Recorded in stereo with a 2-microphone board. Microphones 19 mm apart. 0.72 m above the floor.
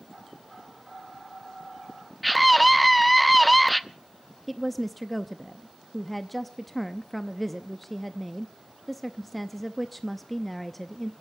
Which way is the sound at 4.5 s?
10° left (ahead or behind).